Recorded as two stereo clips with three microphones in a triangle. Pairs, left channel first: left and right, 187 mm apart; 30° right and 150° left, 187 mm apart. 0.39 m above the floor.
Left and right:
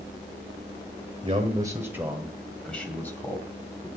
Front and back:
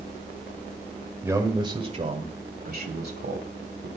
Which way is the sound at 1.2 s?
135° right.